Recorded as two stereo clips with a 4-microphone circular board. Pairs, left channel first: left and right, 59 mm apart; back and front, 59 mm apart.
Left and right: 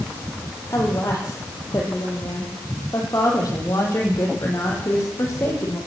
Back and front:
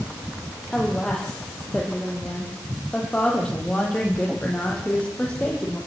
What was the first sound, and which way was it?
A woman speaking, 105° left.